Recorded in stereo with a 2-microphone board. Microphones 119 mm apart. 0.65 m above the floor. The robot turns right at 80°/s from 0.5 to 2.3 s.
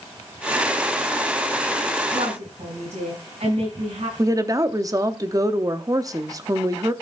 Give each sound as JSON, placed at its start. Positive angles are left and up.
{"t": 2.1, "sound": "a woman speaking", "side_deg": -80, "distance_m": 6.0}
{"t": 4.2, "sound": "a woman speaking", "side_deg": -30, "distance_m": 0.9}